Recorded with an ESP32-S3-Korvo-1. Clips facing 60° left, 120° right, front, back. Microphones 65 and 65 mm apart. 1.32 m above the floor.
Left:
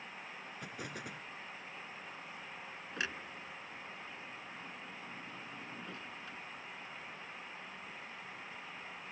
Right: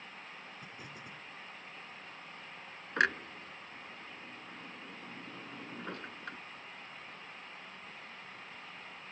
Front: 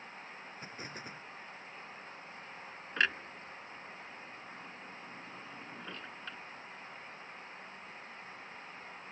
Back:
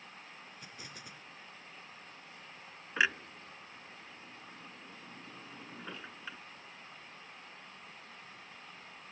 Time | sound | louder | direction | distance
0.6 | an explosion | left 4 dB, front 6 dB | 55° left | ?
3.0 | a clunk | right 11 dB, back 1 dB | 100° right | ?